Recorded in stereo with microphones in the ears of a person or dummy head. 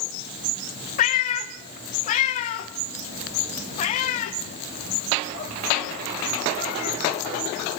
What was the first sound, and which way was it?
A cat meowing, 35° left (ahead or behind).